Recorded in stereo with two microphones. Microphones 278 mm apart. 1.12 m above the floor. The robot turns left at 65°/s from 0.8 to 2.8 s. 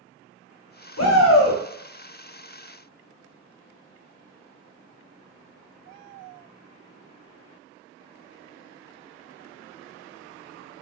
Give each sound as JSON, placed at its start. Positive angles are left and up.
{"t": 1.0, "sound": "a shout", "azimuth_deg": 80, "distance_m": 0.6}